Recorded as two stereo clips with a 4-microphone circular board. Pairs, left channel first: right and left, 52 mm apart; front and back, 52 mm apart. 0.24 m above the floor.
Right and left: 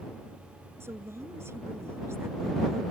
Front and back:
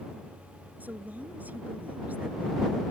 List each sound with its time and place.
0.8 s a woman speaking: 125° left